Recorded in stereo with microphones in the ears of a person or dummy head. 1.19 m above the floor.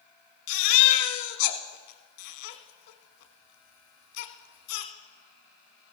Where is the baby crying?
50° left (ahead or behind), 1.0 m.